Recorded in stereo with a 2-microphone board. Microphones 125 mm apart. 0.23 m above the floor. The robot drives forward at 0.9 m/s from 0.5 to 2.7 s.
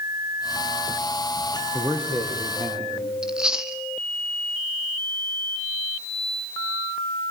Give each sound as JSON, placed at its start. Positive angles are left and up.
{"t": 1.7, "sound": "a man speaking", "side_deg": -45, "distance_m": 9.5}
{"t": 3.2, "sound": "chewing", "side_deg": -5, "distance_m": 1.3}